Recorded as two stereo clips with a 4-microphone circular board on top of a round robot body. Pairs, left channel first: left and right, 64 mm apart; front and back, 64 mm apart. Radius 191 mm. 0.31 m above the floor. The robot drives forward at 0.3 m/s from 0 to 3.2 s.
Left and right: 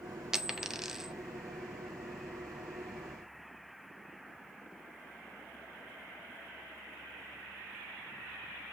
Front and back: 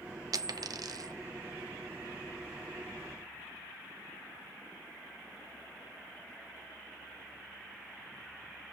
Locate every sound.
0.3 s a dropped coin: 170° right, 1.0 m; by 1.1 s 175° right, 1.2 m